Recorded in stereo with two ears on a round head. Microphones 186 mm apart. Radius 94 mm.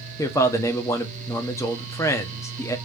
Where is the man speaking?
15° left (ahead or behind), 0.8 m.